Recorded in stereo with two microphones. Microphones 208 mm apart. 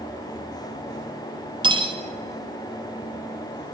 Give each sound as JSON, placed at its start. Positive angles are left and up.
{"t": 1.6, "sound": "cutlery clinking", "side_deg": -25, "distance_m": 0.6}